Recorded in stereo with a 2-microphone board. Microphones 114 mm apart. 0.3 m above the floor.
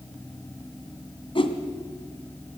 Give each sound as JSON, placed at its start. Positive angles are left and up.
{"t": 1.4, "sound": "a whoosh", "side_deg": 50, "distance_m": 2.0}